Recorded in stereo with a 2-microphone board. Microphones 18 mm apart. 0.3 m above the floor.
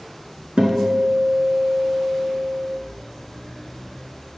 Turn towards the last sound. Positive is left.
turn(degrees=-80)